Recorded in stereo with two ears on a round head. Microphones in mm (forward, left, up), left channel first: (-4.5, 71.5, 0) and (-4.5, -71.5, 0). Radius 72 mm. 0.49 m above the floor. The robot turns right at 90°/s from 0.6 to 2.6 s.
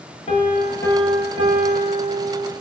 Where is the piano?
140° left, 7 m; by 2.5 s 45° right, 7 m.